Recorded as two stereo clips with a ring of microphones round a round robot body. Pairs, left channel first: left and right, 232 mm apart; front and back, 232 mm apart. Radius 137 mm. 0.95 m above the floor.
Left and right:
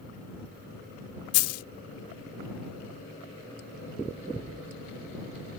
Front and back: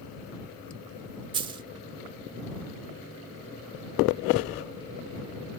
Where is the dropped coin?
110° left.